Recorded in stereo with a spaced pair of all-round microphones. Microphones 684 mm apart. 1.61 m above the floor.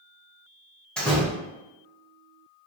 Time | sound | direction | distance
1.0 | a door slam | centre (ahead or behind) | 0.7 m